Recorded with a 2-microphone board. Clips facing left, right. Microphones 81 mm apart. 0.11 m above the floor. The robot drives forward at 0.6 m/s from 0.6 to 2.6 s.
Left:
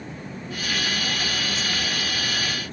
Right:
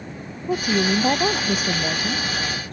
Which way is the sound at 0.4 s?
60° right (ahead or behind).